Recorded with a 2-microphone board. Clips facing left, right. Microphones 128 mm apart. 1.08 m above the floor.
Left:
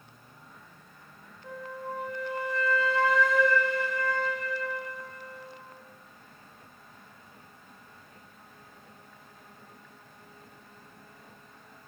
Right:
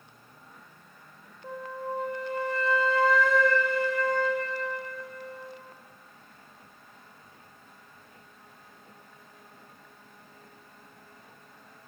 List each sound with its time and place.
1.4 s a flute: 30° right (ahead or behind), 1.3 m